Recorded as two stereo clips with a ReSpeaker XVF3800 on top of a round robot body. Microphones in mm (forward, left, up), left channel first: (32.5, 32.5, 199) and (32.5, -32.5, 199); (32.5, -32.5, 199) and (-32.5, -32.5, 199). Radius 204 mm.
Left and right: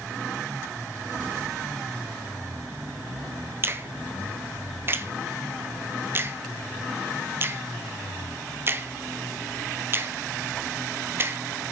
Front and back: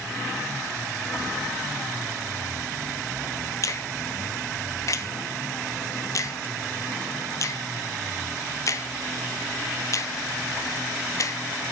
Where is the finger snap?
35° right, 1.0 m.